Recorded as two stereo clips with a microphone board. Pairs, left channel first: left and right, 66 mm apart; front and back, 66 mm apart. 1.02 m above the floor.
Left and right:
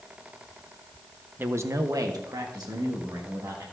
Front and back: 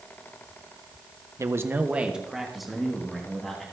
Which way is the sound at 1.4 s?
145° right.